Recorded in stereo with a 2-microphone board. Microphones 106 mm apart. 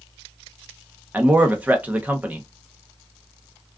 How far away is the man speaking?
About 0.6 m.